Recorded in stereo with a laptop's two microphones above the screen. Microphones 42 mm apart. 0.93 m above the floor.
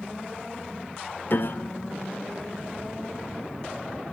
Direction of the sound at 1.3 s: 55° left (ahead or behind).